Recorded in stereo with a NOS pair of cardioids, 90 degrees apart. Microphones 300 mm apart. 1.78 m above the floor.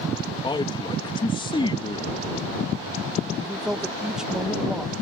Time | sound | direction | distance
0.4 | a man speaking | 15° left | ?
3.4 | a woman speaking | straight ahead | ?